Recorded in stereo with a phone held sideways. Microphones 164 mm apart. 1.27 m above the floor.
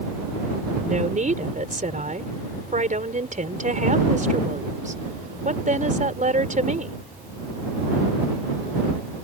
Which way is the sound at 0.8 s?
50° right (ahead or behind).